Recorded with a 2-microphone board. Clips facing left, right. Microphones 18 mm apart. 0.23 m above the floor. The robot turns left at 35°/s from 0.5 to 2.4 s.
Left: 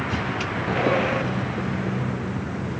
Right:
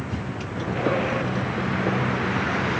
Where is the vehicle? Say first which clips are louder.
Left 5 dB; 35° left; by 2.8 s 35° right.